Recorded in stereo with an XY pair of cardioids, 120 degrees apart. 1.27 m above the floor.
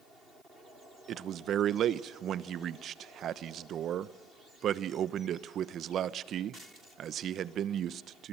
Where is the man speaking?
55° right, 1.0 m.